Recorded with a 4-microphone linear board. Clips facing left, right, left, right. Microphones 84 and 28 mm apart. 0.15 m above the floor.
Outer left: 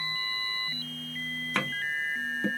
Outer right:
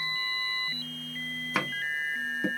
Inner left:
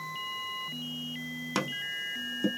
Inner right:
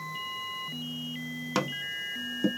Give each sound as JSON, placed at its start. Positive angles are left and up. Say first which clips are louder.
{"t": 1.6, "sound": "tapping", "louder": "even, inner right 2 dB", "side_deg": -10, "distance_m": 0.7}